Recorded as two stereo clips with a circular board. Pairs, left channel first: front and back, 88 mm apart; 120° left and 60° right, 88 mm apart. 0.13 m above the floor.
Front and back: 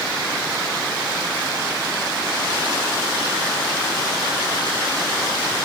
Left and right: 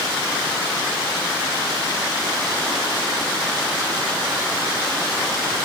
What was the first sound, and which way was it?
Only background noise.